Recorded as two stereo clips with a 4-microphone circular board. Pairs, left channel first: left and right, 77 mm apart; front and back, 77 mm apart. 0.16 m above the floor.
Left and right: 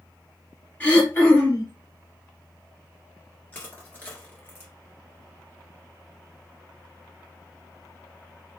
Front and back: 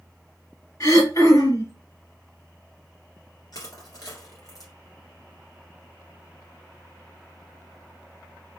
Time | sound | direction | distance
0.8 | throat clearing | 30° left | 3 m
3.5 | crushing | 25° left | 1.6 m